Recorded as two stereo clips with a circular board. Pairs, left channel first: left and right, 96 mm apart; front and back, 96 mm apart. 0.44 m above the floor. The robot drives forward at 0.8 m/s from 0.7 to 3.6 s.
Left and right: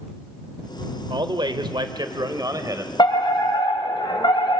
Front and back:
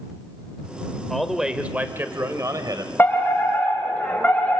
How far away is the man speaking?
About 1.4 m.